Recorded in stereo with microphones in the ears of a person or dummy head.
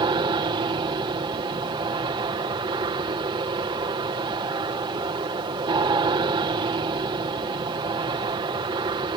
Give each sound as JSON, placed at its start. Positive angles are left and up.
{"t": 0.0, "sound": "an aircraft", "side_deg": -20}